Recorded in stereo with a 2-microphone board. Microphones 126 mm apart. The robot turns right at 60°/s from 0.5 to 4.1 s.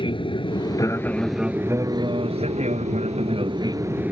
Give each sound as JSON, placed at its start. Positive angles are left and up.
{"t": 0.0, "sound": "an aircraft", "azimuth_deg": 130}